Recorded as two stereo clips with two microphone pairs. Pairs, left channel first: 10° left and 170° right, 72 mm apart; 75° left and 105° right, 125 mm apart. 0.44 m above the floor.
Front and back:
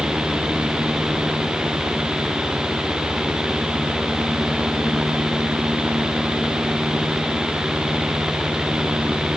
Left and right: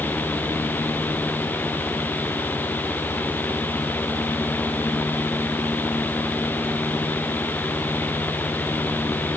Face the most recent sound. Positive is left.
No sound to turn to.